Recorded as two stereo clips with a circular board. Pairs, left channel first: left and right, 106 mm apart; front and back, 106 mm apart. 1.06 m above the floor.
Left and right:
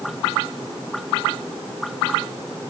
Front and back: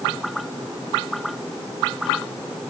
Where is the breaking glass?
No breaking glass in this recording.